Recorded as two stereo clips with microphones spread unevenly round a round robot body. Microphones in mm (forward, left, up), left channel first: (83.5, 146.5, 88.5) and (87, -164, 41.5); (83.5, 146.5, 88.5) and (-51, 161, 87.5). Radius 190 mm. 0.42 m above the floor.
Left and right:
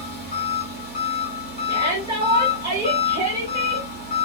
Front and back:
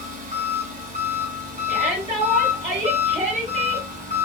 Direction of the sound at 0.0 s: 155° left.